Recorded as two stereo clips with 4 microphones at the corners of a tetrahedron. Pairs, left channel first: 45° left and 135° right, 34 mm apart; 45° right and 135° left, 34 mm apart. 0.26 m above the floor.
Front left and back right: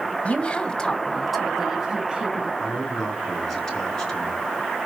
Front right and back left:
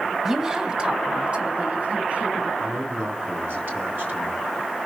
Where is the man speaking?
125° left, 3.5 m.